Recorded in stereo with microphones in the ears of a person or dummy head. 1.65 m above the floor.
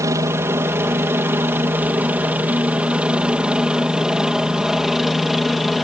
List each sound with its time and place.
0.0 s a helicopter: 15° right (ahead or behind); by 5.8 s centre (ahead or behind)